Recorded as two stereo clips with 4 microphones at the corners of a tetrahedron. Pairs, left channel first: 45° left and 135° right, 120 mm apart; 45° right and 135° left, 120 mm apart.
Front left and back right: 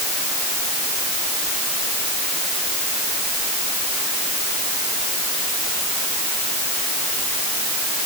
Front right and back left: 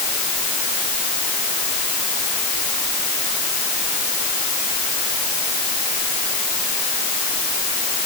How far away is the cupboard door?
I don't hear a cupboard door.